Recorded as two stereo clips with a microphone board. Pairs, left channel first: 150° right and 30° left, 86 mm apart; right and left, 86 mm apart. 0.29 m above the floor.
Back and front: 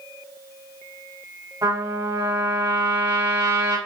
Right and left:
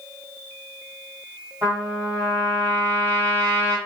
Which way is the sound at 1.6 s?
40° left.